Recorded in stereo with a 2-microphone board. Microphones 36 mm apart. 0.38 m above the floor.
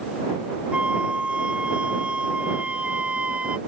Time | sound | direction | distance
0.7 | a flute | 35° right (ahead or behind) | ?